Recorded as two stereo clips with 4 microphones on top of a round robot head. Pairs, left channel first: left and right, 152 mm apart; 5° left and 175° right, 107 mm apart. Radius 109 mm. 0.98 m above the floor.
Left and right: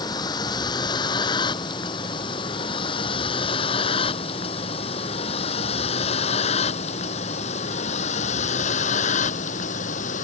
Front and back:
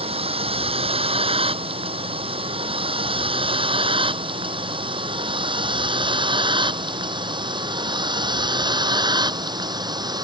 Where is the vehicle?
160° left; by 10.2 s 135° left.